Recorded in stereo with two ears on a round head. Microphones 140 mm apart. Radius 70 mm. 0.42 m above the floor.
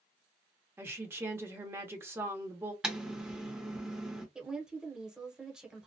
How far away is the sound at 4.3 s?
About 0.8 m.